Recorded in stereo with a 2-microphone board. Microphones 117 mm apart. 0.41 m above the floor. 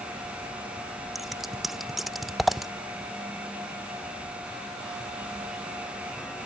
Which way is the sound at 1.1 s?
Centre (ahead or behind).